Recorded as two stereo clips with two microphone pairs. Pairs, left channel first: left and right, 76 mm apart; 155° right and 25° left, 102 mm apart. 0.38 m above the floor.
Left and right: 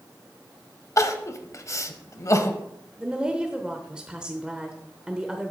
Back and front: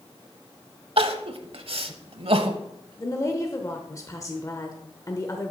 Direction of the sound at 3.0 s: 160° right.